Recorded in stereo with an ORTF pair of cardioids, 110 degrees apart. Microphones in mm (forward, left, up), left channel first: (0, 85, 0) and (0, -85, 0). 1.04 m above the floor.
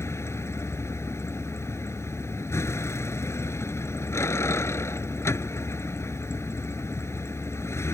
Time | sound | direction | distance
0.0 | a vehicle | 15° left | ?